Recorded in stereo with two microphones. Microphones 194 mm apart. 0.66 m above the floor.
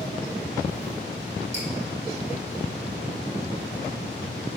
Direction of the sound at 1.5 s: 75° right (ahead or behind).